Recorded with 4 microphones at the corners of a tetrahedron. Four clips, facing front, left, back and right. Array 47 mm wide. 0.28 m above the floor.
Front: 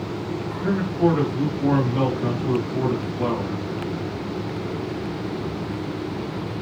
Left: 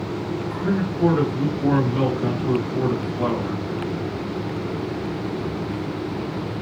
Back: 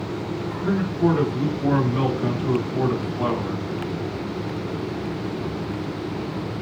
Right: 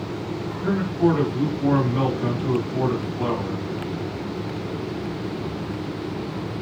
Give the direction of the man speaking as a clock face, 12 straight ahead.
12 o'clock.